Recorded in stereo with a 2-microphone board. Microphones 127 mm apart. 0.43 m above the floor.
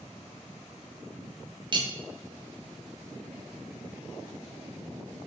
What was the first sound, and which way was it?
Cutlery clinking, 40° right (ahead or behind).